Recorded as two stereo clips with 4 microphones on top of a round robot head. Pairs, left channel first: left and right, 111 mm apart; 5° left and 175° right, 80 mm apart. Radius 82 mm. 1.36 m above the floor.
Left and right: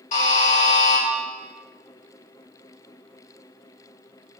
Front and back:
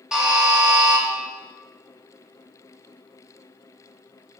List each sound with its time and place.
0.1 s a buzzer: 105° left, 2 m